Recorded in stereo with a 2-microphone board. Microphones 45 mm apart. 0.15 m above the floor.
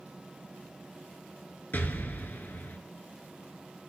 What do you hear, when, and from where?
1.7 s an explosion: 45° left (ahead or behind), 0.7 m